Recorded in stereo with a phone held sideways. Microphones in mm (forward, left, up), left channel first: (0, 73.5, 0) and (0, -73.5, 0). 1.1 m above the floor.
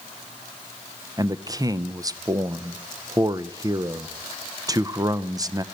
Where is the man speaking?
25° right (ahead or behind), 0.5 m.